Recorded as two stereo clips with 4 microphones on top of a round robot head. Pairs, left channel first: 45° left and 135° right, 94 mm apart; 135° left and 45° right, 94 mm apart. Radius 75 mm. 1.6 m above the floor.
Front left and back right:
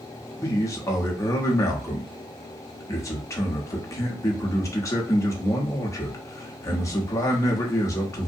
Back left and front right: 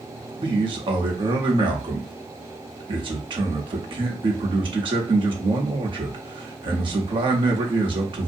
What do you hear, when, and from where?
0.4 s a man speaking: 10° right, 0.8 m